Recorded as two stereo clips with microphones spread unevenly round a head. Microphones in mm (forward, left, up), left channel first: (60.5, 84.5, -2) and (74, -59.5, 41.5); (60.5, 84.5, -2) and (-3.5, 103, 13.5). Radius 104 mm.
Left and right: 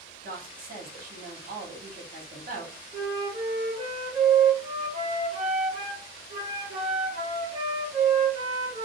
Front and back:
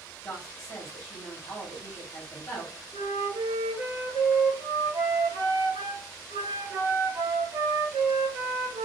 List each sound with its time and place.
0.2 s a woman speaking: 55° right, 1.2 m
2.9 s a flute: 145° right, 0.7 m